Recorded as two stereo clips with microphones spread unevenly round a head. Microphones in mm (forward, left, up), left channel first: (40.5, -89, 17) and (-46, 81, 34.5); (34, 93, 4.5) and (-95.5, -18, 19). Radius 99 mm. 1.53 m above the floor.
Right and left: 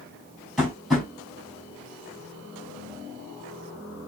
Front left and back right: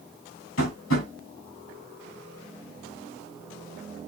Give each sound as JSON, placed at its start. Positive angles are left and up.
{"t": 0.6, "sound": "tapping", "azimuth_deg": 30, "distance_m": 5.0}